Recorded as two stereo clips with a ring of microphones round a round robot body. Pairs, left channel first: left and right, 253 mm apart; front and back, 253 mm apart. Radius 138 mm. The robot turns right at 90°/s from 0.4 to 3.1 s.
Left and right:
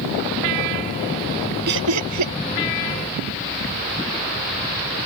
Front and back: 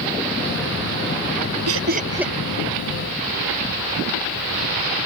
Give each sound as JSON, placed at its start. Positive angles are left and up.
{"t": 1.7, "sound": "laughter", "azimuth_deg": -145}